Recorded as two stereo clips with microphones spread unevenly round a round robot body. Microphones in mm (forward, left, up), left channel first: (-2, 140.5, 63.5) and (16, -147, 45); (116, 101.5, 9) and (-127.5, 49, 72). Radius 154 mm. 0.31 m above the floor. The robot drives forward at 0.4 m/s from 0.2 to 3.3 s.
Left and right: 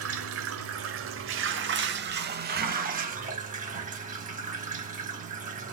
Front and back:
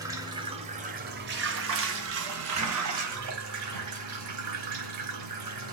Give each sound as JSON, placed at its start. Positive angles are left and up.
{"t": 0.0, "sound": "running water", "azimuth_deg": -80, "distance_m": 1.0}